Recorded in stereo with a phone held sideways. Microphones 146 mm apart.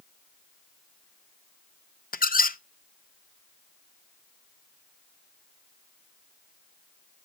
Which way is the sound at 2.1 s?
80° left.